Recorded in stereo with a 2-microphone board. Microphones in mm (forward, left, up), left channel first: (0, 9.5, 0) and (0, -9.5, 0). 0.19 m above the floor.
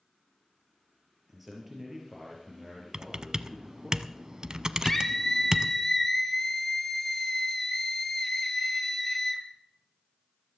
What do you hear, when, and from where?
1.3 s a man speaking: 10° right (ahead or behind), 3.5 m
2.9 s typing on a keyboard: 35° right (ahead or behind), 0.5 m
4.8 s a scream: 10° left (ahead or behind), 2 m